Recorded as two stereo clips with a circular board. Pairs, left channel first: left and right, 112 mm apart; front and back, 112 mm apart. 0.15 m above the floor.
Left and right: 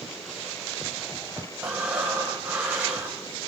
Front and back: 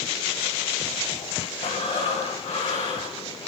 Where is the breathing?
15° right, 7.5 m.